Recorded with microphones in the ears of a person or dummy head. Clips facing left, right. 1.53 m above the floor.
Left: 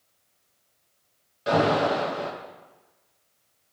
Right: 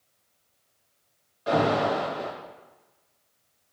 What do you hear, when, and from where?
1.5 s an alarm: 25° left (ahead or behind), 3 m